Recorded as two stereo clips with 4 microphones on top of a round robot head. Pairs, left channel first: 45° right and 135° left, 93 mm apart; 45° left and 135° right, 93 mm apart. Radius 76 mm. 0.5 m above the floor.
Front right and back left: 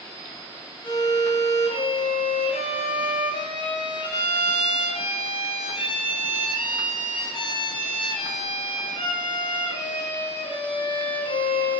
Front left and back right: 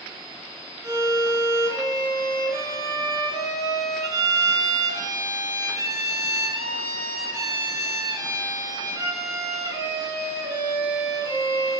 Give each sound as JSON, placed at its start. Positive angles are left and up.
{"t": 0.8, "sound": "a violin", "azimuth_deg": -80, "distance_m": 3.0}